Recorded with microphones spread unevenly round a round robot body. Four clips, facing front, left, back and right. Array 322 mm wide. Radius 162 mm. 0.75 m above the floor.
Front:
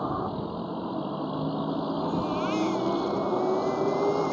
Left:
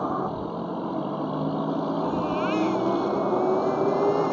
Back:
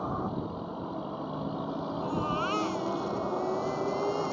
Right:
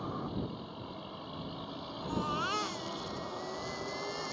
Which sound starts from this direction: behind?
A baby crying, at 2.0 s.